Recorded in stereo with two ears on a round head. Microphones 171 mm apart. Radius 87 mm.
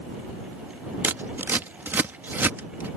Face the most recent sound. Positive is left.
turn(degrees=-10)  # may be behind; listen again after turning